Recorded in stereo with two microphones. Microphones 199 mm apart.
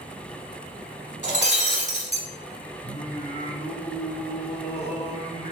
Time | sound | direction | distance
1.2 | breaking glass | 40° right (ahead or behind) | 0.9 m
2.8 | singing | 30° left (ahead or behind) | 1.9 m